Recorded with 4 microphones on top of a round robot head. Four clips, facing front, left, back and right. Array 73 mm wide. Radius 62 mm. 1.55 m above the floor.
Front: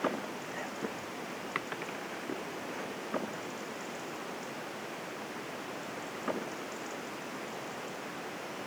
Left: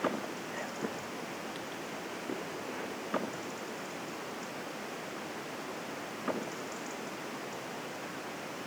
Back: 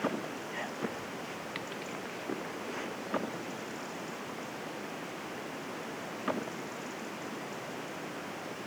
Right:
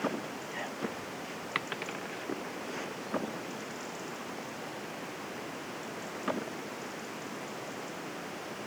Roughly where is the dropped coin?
Ahead right.